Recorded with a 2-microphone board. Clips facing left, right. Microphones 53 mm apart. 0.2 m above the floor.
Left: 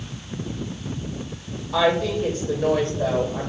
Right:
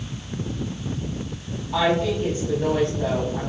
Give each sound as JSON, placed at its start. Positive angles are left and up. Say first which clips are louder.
{"t": 1.7, "sound": "a woman speaking", "louder": "left 1 dB", "side_deg": -15, "distance_m": 6.5}